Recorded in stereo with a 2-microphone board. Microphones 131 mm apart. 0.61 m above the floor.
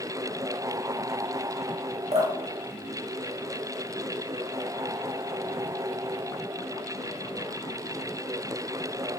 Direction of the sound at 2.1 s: 55° right (ahead or behind).